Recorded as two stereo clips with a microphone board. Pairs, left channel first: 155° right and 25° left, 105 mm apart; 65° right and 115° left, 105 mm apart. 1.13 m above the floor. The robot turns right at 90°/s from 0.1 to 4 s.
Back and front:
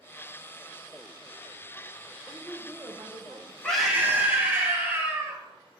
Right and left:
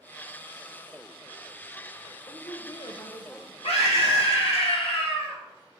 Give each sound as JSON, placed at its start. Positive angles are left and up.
{"t": 2.3, "sound": "a woman speaking", "azimuth_deg": -90, "distance_m": 0.6}
{"t": 3.6, "sound": "a scream", "azimuth_deg": -80, "distance_m": 1.2}